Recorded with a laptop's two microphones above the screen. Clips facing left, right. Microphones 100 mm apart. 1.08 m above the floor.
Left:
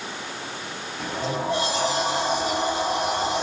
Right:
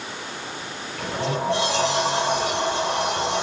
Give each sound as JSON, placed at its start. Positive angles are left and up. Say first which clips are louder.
{"t": 1.0, "sound": "a sliding door", "louder": "right 2 dB", "side_deg": -75, "distance_m": 6.5}